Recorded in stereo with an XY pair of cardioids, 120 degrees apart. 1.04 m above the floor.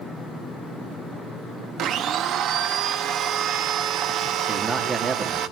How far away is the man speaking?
About 2.5 m.